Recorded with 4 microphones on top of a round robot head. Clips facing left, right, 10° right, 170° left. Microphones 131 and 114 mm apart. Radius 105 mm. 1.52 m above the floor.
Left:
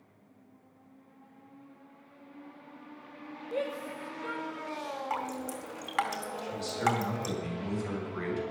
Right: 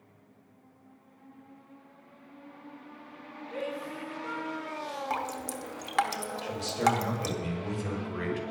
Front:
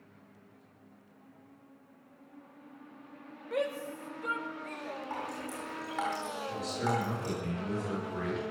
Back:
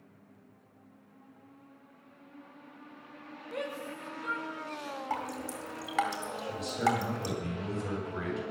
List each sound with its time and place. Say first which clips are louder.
3.5 s a shout: left 1 dB, front 5 dB; 25° left, 5 m; by 5.0 s 30° left, 6.5 m
5.1 s dripping: right 1 dB, back 5 dB; 140° right, 1.6 m
6.4 s a man speaking: right 3 dB, back 5 dB; 120° right, 7.5 m